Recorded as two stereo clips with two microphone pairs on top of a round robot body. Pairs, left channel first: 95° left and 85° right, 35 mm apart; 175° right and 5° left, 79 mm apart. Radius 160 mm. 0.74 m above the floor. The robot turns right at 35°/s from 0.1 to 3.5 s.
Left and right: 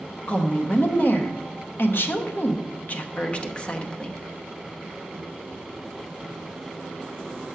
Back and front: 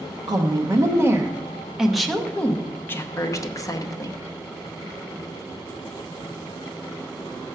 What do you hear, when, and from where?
0.3 s a woman speaking: 40° left, 1.0 m; by 4.2 s 155° left, 1.0 m